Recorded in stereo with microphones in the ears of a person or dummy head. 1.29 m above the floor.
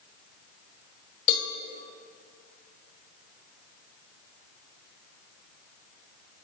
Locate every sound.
1.3 s a cowbell: 55° left (ahead or behind), 1.6 m